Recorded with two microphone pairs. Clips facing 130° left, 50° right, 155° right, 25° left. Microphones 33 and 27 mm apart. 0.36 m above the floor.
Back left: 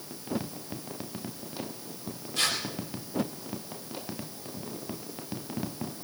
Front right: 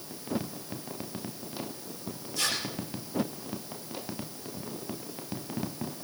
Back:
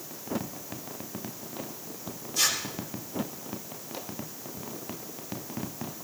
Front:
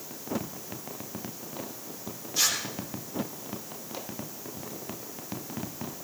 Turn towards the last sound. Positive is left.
turn(degrees=95)